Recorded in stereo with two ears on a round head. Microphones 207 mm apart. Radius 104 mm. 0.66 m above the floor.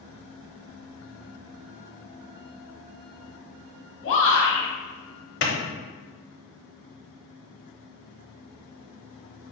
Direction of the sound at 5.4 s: 50° left (ahead or behind).